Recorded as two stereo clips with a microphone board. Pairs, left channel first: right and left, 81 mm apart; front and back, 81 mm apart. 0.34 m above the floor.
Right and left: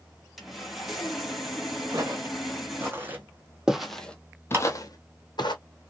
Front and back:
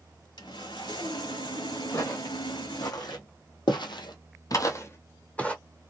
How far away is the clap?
About 2 m.